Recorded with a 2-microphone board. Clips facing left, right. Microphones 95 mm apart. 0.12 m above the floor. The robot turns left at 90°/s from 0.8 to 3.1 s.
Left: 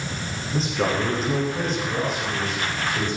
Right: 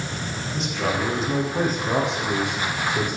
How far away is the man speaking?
About 6 m.